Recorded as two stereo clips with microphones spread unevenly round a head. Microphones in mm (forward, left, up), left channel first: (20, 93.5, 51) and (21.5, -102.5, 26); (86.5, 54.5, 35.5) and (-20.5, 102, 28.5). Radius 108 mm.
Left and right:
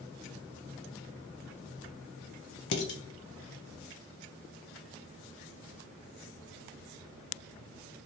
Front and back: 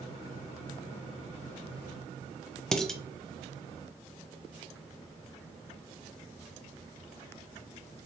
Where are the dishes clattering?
60° left, 0.6 m.